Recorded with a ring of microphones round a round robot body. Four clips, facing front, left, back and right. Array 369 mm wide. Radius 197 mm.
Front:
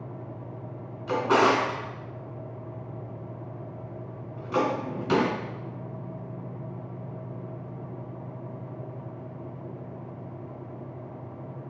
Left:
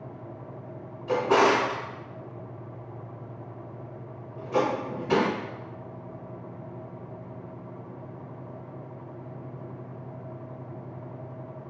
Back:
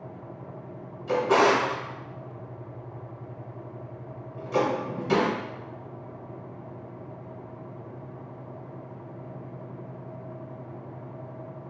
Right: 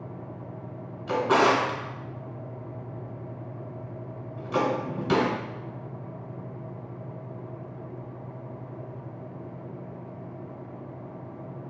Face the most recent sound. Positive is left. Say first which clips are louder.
# even, back 1 dB
turn(degrees=-70)